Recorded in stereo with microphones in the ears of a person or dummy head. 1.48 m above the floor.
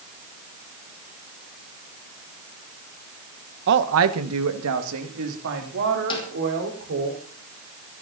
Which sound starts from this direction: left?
A snare drum, at 6.1 s.